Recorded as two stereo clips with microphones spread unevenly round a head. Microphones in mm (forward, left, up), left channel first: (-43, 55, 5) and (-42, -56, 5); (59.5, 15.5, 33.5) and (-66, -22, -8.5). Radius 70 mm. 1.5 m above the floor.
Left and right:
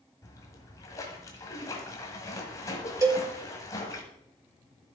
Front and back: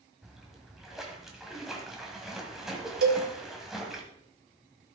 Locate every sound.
0.2 s a splash: 70° left, 1.4 m
3.0 s a cowbell: 155° right, 1.8 m